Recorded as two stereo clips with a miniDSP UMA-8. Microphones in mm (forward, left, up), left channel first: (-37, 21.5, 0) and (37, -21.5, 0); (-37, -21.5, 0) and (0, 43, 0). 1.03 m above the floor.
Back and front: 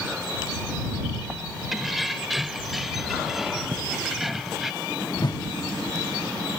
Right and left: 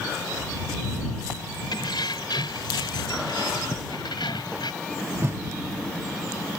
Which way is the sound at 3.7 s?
80° right.